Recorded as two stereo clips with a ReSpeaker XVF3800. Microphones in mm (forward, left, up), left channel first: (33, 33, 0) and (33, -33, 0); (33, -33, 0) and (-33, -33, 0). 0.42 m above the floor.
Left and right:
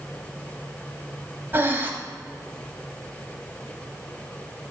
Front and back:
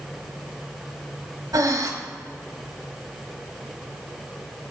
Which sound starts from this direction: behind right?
Breathing, at 1.5 s.